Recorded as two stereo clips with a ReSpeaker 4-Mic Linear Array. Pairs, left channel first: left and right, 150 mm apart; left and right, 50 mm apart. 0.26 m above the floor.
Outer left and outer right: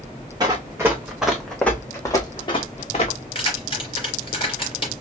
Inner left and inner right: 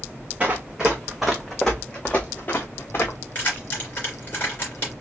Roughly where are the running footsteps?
Right.